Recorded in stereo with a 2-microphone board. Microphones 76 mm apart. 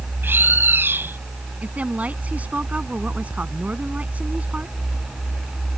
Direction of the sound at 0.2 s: 30° right (ahead or behind).